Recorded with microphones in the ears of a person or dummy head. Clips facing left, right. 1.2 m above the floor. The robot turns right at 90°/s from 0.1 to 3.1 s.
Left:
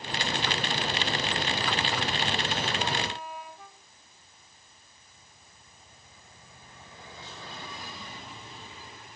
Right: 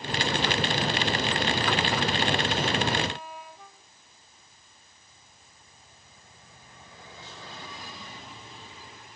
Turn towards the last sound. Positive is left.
No sound to turn to.